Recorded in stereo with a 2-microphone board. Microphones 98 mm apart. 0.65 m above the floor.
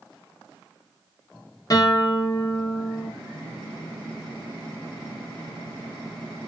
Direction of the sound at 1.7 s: 40° left (ahead or behind).